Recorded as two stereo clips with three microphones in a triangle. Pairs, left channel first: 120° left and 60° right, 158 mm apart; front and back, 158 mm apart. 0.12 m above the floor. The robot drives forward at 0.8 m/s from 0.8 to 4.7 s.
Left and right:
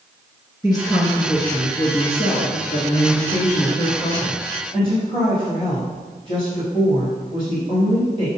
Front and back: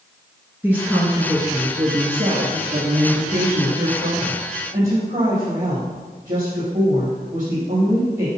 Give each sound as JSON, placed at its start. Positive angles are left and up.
{"t": 0.6, "sound": "a woman speaking", "azimuth_deg": 115, "distance_m": 1.5}